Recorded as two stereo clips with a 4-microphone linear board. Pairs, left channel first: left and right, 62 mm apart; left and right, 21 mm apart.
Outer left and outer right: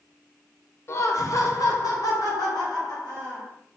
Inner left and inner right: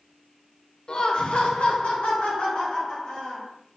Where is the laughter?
45° left (ahead or behind), 0.6 m; by 3.5 s 85° left, 1.9 m.